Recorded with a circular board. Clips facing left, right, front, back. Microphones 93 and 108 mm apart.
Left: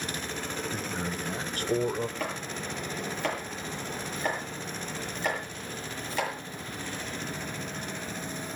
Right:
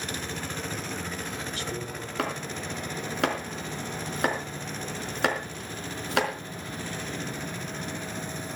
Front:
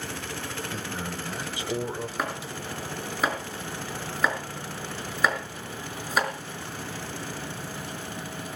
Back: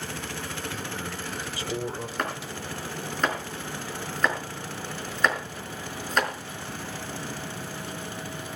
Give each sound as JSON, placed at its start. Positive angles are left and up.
{"t": 0.7, "sound": "a man speaking", "azimuth_deg": 45, "distance_m": 3.0}
{"t": 2.2, "sound": "chopping", "azimuth_deg": -85, "distance_m": 4.5}